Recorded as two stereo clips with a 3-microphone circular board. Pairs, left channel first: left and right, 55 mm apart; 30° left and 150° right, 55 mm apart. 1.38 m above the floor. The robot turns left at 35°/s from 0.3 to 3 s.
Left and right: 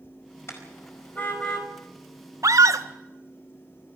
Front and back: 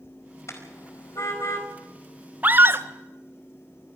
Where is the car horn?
55° left, 4.5 m; by 1.7 s 15° left, 4.5 m.